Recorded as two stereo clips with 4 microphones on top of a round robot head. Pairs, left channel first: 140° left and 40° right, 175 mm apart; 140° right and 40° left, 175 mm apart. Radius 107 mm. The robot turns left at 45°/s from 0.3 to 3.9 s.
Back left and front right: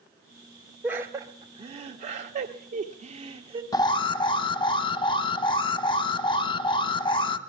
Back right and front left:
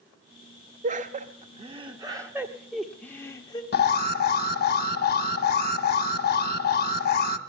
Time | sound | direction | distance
0.8 | laughter | 40° left | 0.9 m
3.7 | an alarm | 155° right | 1.2 m